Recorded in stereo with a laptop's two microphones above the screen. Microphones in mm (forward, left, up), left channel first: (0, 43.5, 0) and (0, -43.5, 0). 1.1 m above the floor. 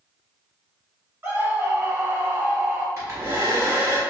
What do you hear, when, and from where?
1.2 s a scream: 25° right (ahead or behind), 1.9 m
3.0 s a hair dryer: 35° right (ahead or behind), 1.5 m